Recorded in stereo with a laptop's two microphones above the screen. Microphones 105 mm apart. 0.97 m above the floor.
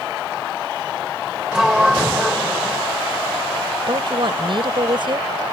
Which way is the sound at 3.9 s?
55° right (ahead or behind).